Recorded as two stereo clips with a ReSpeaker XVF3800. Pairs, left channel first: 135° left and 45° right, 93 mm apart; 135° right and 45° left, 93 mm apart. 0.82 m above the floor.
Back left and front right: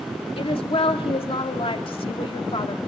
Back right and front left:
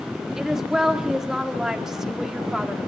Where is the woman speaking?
130° left, 1.9 m.